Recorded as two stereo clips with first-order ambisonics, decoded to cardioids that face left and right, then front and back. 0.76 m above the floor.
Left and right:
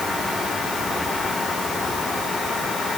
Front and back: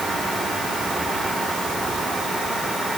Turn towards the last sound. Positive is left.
No sound to turn to.